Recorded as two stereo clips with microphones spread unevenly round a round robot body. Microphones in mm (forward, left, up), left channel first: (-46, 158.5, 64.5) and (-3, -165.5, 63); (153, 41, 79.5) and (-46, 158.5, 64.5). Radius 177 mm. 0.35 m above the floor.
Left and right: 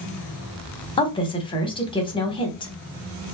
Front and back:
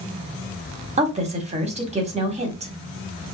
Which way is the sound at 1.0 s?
160° left.